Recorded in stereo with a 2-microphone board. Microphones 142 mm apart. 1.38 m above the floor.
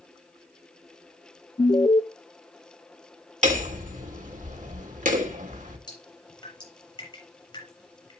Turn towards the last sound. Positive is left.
turn(degrees=30)  # may be behind; listen again after turning